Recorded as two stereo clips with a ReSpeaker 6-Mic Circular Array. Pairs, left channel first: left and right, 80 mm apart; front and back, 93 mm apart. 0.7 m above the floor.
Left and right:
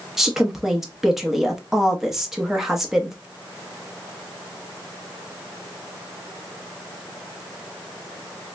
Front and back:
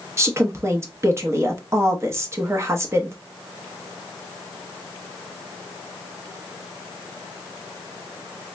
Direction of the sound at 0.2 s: 170° right.